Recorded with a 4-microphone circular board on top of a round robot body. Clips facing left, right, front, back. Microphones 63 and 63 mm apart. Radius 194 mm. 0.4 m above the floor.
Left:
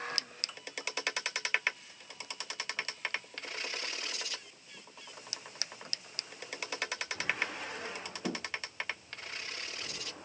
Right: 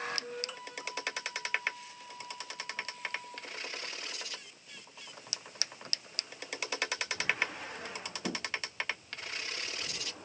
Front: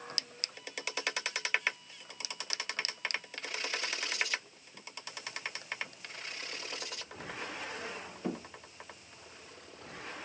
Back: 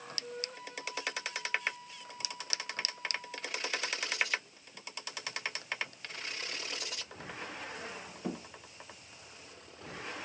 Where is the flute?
130° right.